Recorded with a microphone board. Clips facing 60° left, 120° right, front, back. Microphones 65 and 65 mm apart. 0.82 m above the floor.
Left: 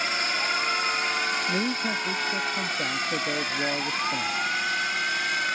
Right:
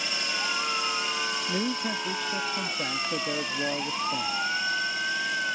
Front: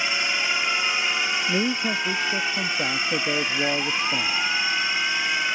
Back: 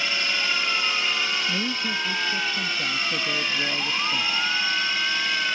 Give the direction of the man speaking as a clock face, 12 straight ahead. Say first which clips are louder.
Left 2 dB, front 3 dB; 1 o'clock.